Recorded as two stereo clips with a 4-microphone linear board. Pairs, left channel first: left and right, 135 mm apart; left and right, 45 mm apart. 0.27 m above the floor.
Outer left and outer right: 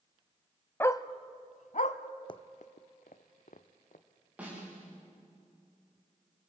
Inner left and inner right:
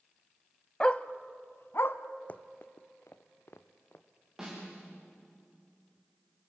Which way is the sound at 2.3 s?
40° left (ahead or behind).